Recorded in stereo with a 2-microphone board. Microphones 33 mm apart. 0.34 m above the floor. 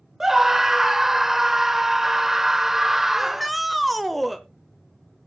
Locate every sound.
0.2 s a scream: 10° right (ahead or behind), 0.9 m
3.2 s a shout: centre (ahead or behind), 0.8 m